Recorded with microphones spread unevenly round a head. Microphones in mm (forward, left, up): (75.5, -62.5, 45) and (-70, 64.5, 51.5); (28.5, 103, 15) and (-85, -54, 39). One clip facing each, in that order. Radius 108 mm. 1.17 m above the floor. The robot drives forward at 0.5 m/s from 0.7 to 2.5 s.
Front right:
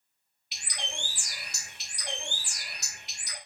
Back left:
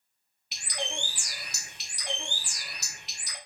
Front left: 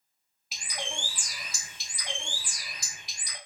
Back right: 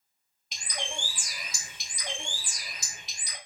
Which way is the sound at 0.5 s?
145° left.